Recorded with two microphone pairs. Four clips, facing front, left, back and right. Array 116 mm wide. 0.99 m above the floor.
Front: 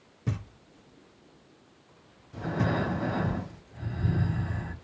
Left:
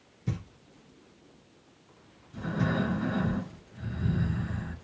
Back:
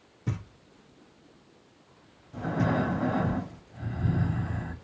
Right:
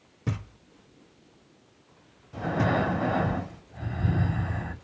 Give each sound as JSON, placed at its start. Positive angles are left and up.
{"t": 0.3, "sound": "knocking", "azimuth_deg": -75, "distance_m": 2.0}
{"t": 2.3, "sound": "breathing", "azimuth_deg": -95, "distance_m": 3.0}